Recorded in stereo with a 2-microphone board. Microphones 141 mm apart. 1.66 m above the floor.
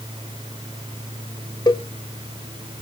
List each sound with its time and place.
1.7 s a cowbell: 30° left (ahead or behind), 0.6 m